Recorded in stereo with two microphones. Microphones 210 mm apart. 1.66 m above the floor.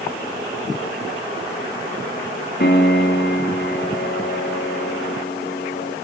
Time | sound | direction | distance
2.6 | a piano | 55° left (ahead or behind) | 2.5 m